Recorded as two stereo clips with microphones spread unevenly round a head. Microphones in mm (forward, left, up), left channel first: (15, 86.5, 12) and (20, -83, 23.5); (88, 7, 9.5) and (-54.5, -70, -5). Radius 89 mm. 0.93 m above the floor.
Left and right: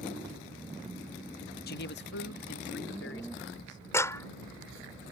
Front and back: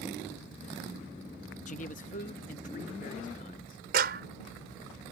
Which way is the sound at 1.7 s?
75° left.